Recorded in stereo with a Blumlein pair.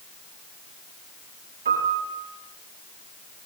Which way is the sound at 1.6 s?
60° right.